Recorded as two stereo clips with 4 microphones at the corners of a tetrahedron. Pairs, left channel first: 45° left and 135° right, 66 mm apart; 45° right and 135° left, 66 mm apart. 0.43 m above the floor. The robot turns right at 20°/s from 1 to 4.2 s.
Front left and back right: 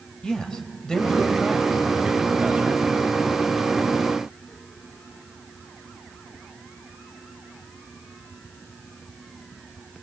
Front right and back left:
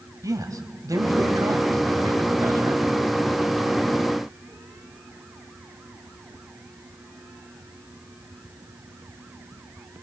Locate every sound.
0.2 s a man speaking: 125° left, 2.5 m; by 2.8 s 160° left, 2.5 m